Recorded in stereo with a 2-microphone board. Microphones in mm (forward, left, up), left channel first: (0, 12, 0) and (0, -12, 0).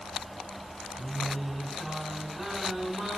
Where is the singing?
5° right (ahead or behind), 5 m.